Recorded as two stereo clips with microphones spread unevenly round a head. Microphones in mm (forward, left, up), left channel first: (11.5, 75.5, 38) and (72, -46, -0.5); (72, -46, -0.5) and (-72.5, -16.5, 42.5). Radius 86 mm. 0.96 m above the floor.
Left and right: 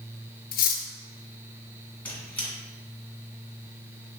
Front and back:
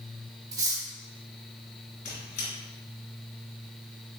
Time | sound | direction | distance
0.5 | cutlery clinking | 95° left | 0.6 m
2.0 | a squeak | 45° left | 2 m